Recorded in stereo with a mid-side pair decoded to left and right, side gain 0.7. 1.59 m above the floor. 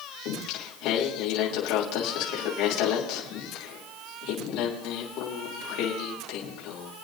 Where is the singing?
65° left, 6.5 m.